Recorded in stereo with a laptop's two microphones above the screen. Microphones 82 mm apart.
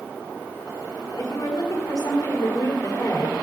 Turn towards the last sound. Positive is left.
turn(degrees=55)  # may be behind; listen again after turning